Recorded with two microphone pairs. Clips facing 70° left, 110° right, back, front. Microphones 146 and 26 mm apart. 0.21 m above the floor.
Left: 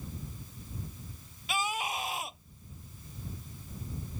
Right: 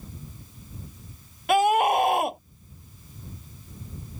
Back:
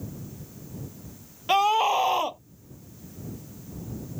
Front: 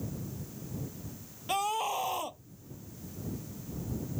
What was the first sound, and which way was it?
A scream, 130° right.